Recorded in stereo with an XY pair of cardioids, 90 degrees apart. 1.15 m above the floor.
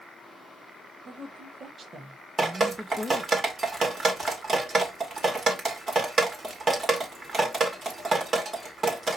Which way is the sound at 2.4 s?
45° right.